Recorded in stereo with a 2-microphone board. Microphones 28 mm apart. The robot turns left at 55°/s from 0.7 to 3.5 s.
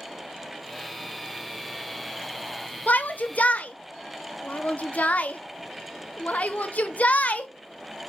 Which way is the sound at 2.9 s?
70° left (ahead or behind).